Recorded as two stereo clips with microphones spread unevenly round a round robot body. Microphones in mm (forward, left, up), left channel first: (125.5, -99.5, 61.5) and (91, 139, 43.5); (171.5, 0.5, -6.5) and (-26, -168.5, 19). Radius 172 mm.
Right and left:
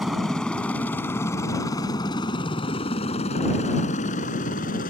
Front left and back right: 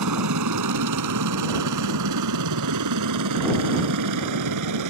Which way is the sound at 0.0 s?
170° right.